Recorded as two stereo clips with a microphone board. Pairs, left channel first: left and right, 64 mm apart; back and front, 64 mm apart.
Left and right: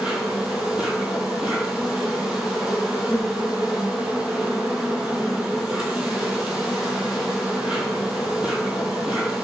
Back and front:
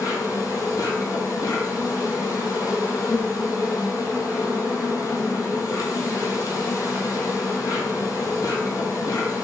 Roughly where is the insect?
Behind.